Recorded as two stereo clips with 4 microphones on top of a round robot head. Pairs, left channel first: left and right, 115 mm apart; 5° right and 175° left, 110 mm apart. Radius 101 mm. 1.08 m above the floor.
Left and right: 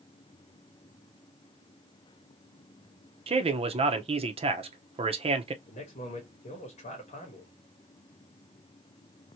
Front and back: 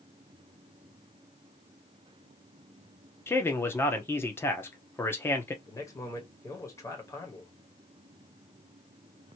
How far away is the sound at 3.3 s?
About 0.8 m.